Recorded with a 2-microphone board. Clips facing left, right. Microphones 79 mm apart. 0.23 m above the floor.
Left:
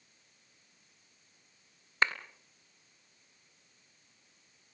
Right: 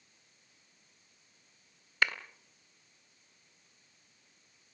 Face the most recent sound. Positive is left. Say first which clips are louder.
# left 1 dB
turn(degrees=30)  # may be behind; listen again after turning